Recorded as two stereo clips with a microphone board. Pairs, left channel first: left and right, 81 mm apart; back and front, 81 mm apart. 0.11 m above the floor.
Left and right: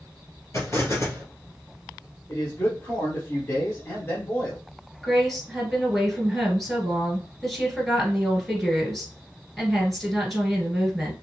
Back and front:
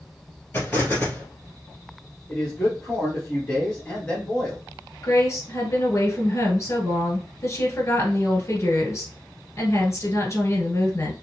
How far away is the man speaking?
About 1.9 m.